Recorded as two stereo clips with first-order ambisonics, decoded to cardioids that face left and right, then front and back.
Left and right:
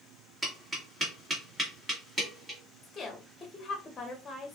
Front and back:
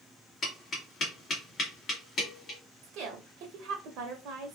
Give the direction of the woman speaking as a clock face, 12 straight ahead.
7 o'clock.